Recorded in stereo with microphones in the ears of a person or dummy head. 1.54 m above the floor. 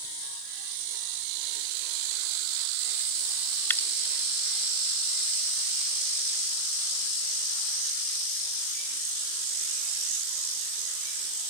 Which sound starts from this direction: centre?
Dripping, at 3.7 s.